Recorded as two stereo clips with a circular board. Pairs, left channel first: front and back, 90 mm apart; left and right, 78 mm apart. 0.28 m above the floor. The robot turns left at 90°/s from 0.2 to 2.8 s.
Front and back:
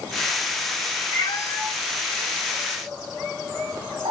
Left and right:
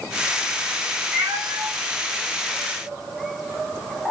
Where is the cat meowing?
30° right, 1.1 m; by 4.1 s straight behind, 1.1 m.